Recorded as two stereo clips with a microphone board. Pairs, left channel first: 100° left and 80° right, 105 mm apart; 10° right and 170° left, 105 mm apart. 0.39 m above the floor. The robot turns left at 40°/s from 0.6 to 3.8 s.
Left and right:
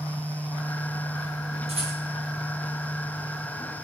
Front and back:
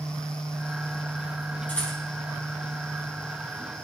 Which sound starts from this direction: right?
A rattle, at 1.7 s.